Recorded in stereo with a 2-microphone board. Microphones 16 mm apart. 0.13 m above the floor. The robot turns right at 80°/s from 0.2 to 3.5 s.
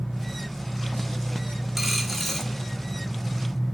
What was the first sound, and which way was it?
A dropped coin, 20° right.